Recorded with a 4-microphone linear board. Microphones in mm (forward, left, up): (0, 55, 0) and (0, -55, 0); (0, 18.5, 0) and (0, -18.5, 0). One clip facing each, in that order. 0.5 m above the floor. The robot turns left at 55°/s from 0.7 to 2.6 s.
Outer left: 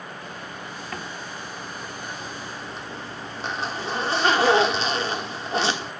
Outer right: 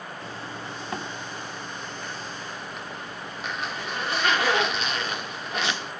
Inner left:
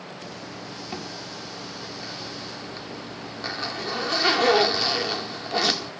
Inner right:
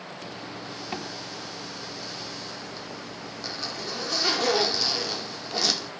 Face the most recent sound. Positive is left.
turn(degrees=130)